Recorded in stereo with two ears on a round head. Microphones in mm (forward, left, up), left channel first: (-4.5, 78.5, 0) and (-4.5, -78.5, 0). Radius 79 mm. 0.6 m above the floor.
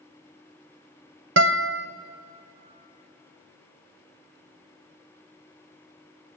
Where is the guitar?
80° right, 0.8 m.